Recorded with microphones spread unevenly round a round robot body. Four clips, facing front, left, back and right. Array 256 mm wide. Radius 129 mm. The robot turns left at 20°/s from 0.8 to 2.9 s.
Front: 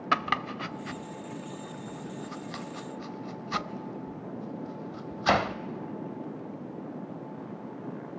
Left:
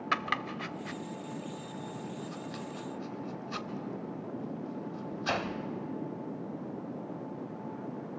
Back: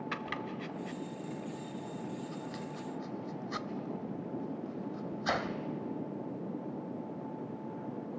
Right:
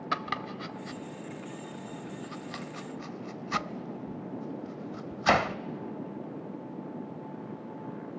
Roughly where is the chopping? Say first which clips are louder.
Left 1 dB, front 10 dB; ahead.